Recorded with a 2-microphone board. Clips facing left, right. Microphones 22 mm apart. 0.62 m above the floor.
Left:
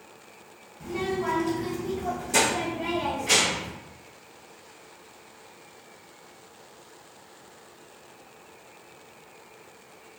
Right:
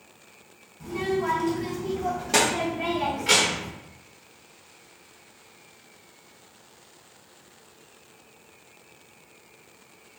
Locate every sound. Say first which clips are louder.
0.8 s a child speaking: right 2 dB; 25° left (ahead or behind), 0.9 m; by 3.7 s 75° right (ahead or behind), 1.2 m